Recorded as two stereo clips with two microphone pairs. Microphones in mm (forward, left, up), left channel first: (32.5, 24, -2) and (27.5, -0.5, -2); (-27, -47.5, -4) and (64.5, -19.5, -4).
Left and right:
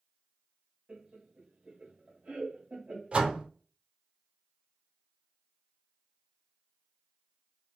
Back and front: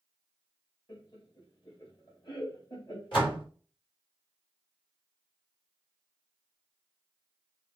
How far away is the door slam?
About 2.5 m.